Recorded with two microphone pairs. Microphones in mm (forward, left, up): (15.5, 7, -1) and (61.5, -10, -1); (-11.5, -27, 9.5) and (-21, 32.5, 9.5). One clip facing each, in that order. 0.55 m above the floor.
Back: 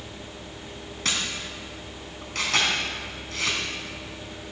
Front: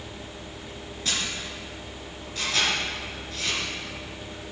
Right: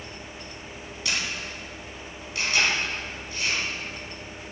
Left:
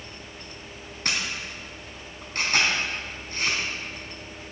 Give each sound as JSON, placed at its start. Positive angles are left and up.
{"t": 1.1, "sound": "a camera shutter", "azimuth_deg": 145, "distance_m": 3.5}